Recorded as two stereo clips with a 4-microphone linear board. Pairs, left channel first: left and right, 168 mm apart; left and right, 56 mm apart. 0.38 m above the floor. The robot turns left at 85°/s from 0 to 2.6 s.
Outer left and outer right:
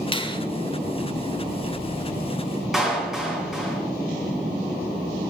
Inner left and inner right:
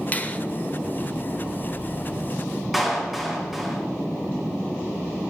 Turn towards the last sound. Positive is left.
turn(degrees=0)  # may be behind; listen again after turning